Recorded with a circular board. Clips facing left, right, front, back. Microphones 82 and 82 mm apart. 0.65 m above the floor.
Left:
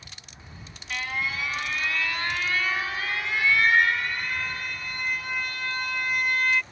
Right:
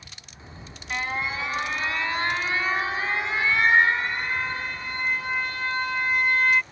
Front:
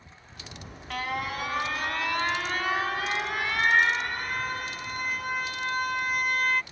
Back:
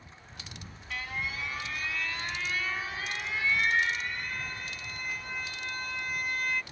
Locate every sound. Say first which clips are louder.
0.4 s an alarm: right 4 dB, front 6 dB; 30° right